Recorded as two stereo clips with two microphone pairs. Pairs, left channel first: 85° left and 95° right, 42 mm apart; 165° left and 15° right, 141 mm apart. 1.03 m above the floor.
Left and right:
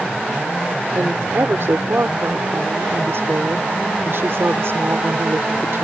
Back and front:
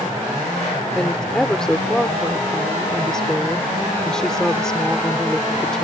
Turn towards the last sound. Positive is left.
turn(degrees=-110)